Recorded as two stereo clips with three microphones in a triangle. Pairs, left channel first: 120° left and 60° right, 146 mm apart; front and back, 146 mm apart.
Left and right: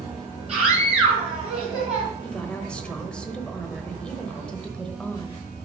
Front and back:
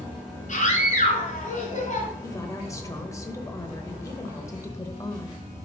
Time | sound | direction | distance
0.5 | a scream | 25° right | 2.5 m
2.2 | a woman speaking | 45° left | 1.0 m